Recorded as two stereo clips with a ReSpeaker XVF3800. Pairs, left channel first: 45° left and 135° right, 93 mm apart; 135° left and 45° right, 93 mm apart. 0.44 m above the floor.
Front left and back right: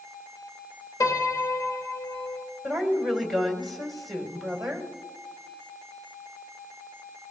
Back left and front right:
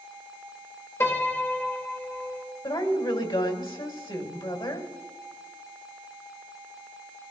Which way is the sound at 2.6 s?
135° left.